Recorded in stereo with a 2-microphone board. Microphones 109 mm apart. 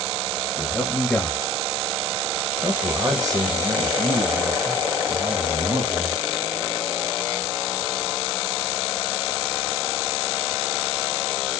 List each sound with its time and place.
0.6 s a man speaking: 20° left (ahead or behind), 1.7 m; by 6.2 s 65° right (ahead or behind), 2 m